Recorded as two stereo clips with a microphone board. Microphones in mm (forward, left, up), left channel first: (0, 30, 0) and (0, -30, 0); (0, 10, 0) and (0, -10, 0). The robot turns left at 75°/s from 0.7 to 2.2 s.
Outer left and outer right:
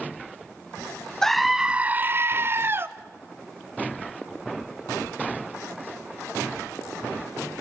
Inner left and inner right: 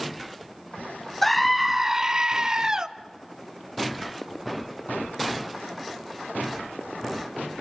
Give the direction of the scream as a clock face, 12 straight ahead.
12 o'clock.